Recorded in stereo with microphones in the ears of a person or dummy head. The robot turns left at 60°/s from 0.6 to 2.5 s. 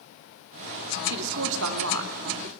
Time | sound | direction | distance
1.1 | a woman speaking | 60° right | 2.5 m